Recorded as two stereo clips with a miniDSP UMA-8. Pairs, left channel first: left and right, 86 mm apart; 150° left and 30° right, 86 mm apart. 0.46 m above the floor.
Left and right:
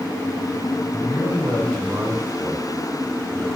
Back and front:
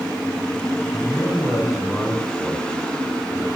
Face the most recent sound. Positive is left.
turn(degrees=-90)